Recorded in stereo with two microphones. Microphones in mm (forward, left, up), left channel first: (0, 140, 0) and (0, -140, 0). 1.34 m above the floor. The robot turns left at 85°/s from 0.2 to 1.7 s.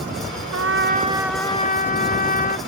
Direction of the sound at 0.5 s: 110° right.